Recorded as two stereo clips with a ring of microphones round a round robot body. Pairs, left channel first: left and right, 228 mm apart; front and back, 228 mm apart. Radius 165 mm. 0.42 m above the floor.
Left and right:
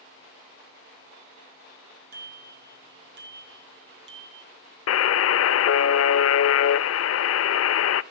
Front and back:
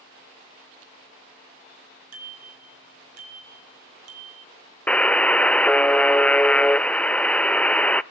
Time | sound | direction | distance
2.1 | a bicycle bell | 150° right | 3.5 m
4.9 | a buzzer | 85° left | 0.6 m